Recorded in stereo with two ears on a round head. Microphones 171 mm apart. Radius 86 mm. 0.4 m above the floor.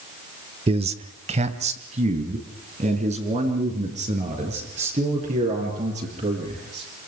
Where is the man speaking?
30° right (ahead or behind), 1.1 m; by 6.8 s 40° right (ahead or behind), 9 m.